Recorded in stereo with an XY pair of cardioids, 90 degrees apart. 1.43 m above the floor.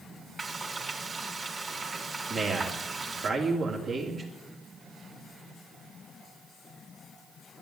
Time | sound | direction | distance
0.4 | frying | 45° right | 3.5 m
2.3 | a man speaking | 60° right | 3 m